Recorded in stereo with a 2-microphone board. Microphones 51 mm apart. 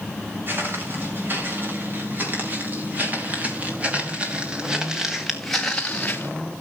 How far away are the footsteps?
About 6 m.